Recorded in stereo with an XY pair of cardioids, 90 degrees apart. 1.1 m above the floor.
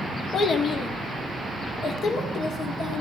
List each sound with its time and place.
0.3 s a child speaking: 55° left, 1.2 m; by 3.0 s 70° left, 2.5 m